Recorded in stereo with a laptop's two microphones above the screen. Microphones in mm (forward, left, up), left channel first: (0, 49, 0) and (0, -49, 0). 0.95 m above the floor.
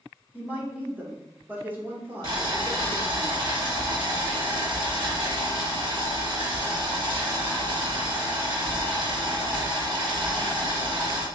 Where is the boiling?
45° right (ahead or behind), 0.8 m.